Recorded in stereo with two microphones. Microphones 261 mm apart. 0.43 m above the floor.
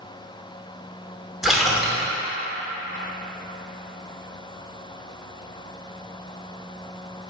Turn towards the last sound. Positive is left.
turn(degrees=0)  # may be behind; listen again after turning